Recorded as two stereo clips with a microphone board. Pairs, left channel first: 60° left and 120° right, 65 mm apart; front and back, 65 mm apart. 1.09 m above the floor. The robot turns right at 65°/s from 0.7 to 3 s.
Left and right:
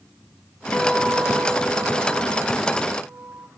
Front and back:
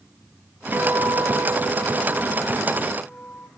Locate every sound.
0.7 s a guitar: 130° left, 1.8 m; by 3.5 s 80° right, 1.8 m